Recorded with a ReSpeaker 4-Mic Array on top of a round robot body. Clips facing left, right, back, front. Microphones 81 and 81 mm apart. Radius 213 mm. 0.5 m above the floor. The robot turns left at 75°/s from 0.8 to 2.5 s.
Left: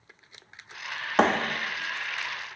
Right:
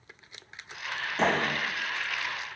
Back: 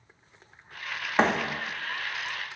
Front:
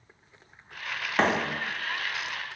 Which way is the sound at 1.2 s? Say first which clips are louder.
Left 4 dB, back 1 dB; 110° left.